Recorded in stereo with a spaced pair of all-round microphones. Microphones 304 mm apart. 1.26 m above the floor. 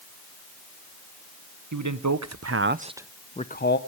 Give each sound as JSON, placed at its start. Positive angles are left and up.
{"t": 1.7, "sound": "a man speaking", "side_deg": -75, "distance_m": 1.1}